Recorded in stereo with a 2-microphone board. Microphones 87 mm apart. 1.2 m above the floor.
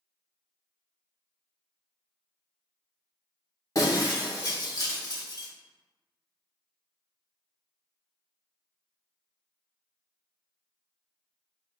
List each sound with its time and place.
3.8 s breaking glass: 45° left (ahead or behind), 1.2 m